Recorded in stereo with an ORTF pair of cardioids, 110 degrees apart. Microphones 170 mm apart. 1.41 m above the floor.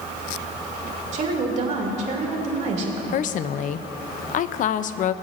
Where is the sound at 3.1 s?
50° left, 0.6 m.